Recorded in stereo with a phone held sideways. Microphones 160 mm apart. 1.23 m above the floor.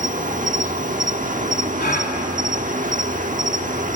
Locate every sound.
0.0 s an insect: 50° right (ahead or behind), 1.1 m
1.8 s a gasp: 65° left (ahead or behind), 3 m